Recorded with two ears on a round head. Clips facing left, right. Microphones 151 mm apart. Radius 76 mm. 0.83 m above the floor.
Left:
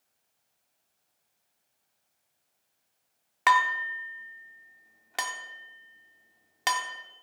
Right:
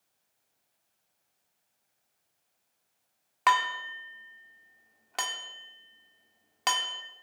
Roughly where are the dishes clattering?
Centre.